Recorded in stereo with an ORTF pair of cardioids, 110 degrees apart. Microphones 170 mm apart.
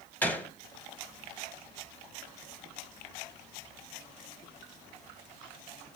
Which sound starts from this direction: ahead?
A gunshot, at 0.2 s.